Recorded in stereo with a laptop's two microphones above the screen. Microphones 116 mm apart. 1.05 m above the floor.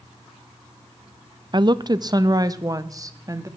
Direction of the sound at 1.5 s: 40° right (ahead or behind).